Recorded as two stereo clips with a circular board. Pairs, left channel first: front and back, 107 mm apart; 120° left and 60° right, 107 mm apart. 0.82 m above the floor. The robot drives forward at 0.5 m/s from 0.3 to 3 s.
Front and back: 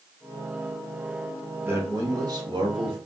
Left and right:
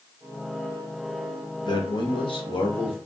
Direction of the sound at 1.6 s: 120° left.